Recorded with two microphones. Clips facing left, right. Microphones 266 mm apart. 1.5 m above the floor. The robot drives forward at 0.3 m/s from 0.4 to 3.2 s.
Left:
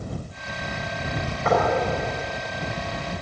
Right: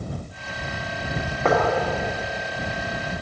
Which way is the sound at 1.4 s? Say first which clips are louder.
Right 1 dB; 70° right (ahead or behind).